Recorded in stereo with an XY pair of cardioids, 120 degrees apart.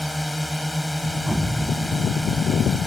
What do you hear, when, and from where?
0.0 s a drone: straight ahead
1.3 s an explosion: 5° right